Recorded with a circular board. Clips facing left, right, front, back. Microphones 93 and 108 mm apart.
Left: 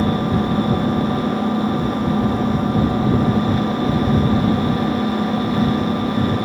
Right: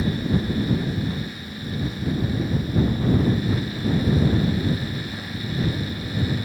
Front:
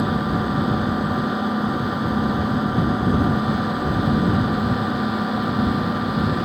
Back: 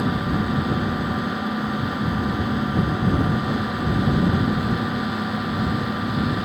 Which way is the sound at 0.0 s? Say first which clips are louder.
Left 6 dB, front 2 dB; 75° left.